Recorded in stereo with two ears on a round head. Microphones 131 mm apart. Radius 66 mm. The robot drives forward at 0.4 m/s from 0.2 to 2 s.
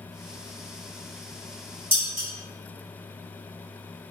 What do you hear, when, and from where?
1.9 s dishes clattering: 15° right (ahead or behind), 1.7 m